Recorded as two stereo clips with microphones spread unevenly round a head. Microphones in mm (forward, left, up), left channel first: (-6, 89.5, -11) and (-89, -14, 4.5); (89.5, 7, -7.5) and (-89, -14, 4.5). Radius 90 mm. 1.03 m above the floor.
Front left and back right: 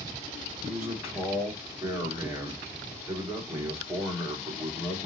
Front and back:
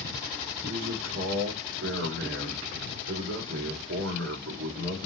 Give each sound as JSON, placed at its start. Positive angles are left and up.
{"t": 0.6, "sound": "a man speaking", "azimuth_deg": 160, "distance_m": 2.5}